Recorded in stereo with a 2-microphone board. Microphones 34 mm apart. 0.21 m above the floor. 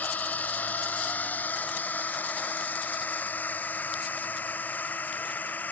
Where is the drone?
55° left (ahead or behind); by 5.7 s 60° left (ahead or behind).